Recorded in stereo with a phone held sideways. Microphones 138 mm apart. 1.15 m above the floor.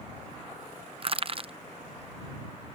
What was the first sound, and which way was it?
Crushing, 45° right (ahead or behind).